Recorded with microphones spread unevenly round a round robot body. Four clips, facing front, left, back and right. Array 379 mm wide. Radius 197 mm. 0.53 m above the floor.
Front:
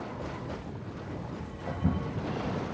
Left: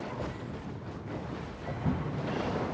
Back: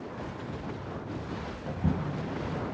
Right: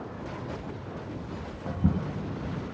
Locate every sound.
1.6 s footsteps: 95° right, 2.5 m